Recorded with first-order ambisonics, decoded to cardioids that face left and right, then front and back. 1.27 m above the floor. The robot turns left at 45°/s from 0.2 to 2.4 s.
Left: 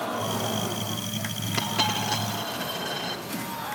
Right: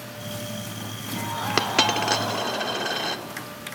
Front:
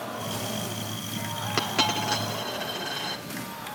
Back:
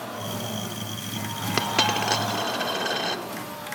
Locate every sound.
1.6 s a dropped coin: 105° right, 1.0 m; by 3.2 s 140° right, 1.0 m